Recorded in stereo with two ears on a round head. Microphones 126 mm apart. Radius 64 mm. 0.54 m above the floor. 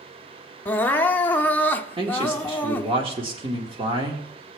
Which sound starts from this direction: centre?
Crying, at 0.7 s.